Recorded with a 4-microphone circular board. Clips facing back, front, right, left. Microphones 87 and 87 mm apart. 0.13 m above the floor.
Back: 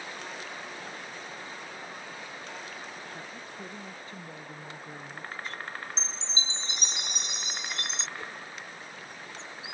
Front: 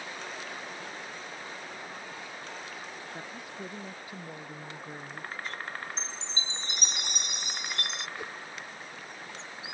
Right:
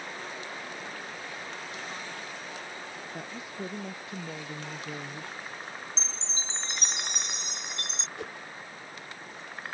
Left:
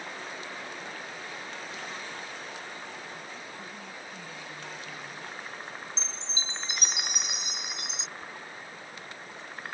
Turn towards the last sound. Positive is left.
turn(degrees=-75)